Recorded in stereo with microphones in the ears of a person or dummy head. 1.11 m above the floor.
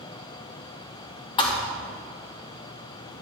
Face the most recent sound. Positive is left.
turn(degrees=25)  # may be behind; listen again after turning